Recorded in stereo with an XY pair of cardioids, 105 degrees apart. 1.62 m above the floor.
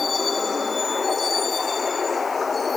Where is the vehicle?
25° left; by 2.8 s 30° left.